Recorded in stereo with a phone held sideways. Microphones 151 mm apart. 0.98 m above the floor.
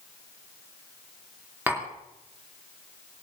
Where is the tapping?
10° right (ahead or behind), 3 m.